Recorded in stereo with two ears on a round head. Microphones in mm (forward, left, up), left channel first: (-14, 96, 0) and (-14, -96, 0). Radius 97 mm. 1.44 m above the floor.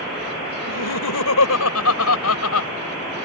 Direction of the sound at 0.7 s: 80° left.